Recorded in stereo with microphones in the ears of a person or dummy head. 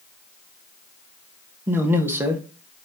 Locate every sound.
1.7 s a man speaking: 15° right (ahead or behind), 0.7 m